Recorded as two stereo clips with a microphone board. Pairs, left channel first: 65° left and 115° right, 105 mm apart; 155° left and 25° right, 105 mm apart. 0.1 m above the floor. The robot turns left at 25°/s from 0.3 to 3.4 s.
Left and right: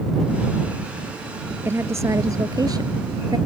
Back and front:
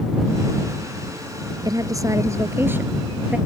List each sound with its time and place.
1.6 s a woman speaking: 55° right; by 3.4 s 100° right